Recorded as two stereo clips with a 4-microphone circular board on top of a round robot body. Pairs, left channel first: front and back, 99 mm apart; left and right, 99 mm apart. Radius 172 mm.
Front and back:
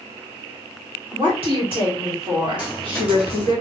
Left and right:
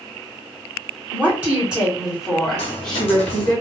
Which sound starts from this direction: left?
A dropped coin, at 2.6 s.